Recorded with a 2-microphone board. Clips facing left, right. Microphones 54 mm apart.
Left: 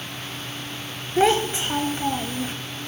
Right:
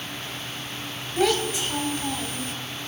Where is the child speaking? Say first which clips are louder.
Left 4 dB; 30° left (ahead or behind), 1.2 m.